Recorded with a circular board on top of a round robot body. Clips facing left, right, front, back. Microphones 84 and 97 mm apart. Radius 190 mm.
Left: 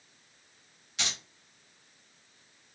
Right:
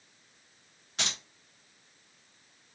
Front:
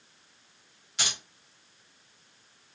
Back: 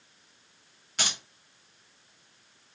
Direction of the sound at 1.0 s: 140° right.